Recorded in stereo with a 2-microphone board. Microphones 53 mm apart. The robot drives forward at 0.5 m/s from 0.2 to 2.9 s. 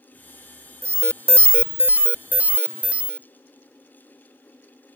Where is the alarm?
55° right (ahead or behind); by 3.3 s 25° right (ahead or behind).